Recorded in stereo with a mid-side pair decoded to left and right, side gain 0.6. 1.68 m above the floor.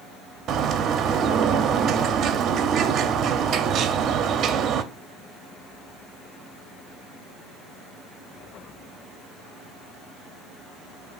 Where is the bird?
50° right, 0.5 m.